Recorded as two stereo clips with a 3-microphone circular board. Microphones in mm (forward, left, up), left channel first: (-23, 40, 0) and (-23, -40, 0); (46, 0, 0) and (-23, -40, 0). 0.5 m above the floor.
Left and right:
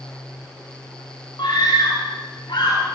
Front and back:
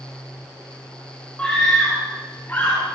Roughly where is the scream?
Left.